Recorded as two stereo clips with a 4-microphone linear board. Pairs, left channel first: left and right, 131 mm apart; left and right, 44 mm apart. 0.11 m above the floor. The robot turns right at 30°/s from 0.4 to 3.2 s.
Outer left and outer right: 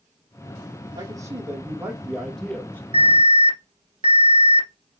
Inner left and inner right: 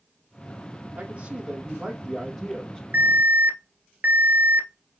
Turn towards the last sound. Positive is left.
turn(degrees=-40)  # may be behind; listen again after turning